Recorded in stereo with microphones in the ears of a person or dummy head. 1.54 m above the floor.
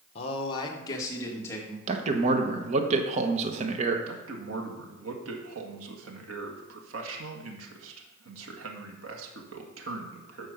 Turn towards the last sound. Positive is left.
turn(degrees=-80)